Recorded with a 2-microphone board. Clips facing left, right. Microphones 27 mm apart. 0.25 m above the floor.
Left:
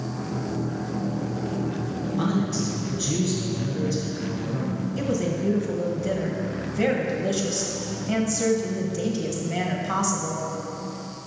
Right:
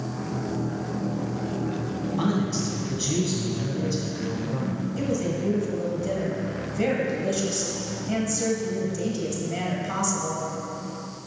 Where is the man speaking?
20° right (ahead or behind), 1.9 m.